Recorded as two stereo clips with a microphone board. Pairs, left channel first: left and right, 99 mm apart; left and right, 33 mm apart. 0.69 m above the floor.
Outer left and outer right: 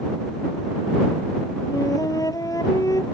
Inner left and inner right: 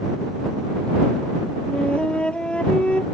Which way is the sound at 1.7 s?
40° left (ahead or behind).